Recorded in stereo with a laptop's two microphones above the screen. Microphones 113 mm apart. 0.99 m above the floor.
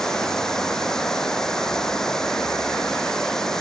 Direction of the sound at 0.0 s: 5° left (ahead or behind).